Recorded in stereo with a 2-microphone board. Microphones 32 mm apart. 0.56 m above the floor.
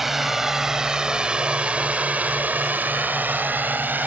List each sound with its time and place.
0.0 s a drone: 10° right (ahead or behind); by 4.1 s 65° right (ahead or behind)